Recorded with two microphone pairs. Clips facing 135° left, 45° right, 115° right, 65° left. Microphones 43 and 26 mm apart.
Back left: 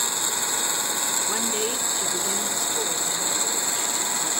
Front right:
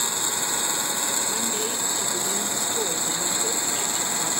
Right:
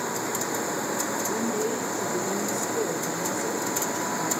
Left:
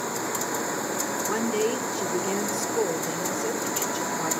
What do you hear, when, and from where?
1.2 s a woman speaking: 80° left, 1.9 m; by 4.3 s 15° left, 3 m